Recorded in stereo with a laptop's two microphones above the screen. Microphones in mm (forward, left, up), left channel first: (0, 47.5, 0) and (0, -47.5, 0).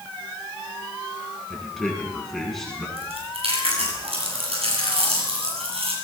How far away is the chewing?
About 8.5 m.